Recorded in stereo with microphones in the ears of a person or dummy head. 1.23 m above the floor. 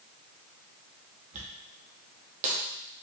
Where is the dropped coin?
40° right (ahead or behind), 0.8 m.